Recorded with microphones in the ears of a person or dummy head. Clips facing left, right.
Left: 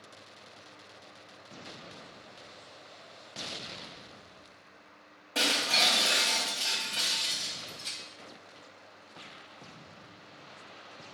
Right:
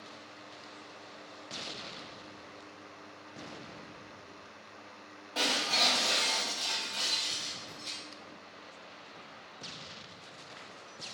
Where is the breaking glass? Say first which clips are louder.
Left 1 dB; 35° left (ahead or behind), 2 m.